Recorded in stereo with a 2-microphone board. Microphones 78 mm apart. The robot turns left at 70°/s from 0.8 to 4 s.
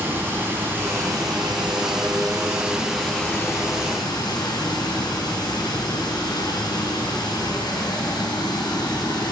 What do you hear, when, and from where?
0.0 s running water: 25° right, 3 m; by 9.3 s 110° left, 3 m